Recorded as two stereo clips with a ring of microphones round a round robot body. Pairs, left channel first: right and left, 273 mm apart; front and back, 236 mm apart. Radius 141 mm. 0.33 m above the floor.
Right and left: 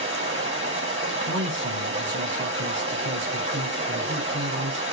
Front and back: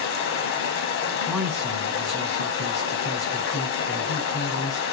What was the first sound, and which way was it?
Running water, 25° left.